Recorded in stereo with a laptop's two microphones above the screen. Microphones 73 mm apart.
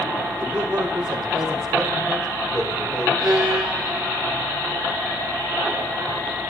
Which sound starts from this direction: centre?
A violin, at 3.2 s.